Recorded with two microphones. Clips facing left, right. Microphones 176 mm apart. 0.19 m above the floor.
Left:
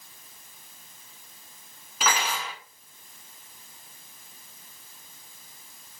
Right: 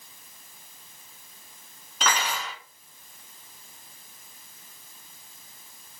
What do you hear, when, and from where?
2.0 s cutlery clinking: 5° left (ahead or behind), 1.2 m